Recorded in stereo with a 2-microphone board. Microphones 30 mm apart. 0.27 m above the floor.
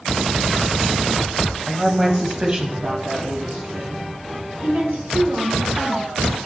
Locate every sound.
1.7 s a woman speaking: 5° left (ahead or behind), 1.0 m; by 4.1 s 50° right (ahead or behind), 2.5 m
4.6 s a woman speaking: 60° right (ahead or behind), 3.5 m